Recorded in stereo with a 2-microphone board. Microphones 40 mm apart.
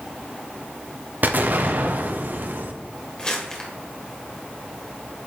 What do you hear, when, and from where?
1.2 s an explosion: 50° right (ahead or behind), 0.6 m
3.2 s crumpling: 20° left (ahead or behind), 1.4 m